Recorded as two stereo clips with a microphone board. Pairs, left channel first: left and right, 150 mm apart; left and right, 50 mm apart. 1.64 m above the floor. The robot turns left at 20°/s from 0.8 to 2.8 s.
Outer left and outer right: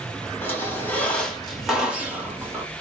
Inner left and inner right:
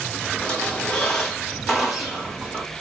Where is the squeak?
15° left, 1.3 m; by 2.6 s 25° right, 1.3 m.